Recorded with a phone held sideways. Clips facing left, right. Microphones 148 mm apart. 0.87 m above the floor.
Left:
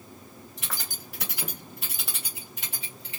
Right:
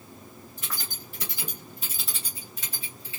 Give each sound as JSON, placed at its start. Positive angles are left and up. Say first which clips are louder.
{"t": 0.6, "sound": "keys jangling", "louder": "even", "side_deg": 75, "distance_m": 2.0}